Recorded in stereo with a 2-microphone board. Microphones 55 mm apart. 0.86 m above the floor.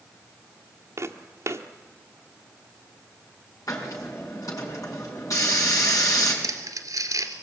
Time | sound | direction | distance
1.0 | footsteps | 55° right (ahead or behind) | 1.3 m
3.7 | a hiss | 70° left (ahead or behind) | 5.5 m
6.4 | crumpling | 75° right (ahead or behind) | 2.5 m